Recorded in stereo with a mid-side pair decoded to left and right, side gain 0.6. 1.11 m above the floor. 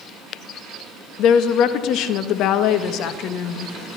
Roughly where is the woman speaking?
Ahead left.